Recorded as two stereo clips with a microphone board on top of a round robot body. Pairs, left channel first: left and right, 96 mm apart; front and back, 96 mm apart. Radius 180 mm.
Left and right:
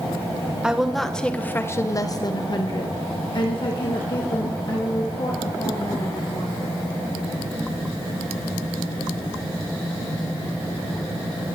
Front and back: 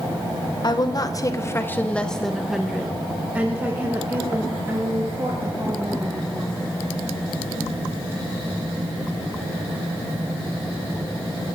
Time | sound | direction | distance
0.6 | a woman speaking | 10° right | 1.0 m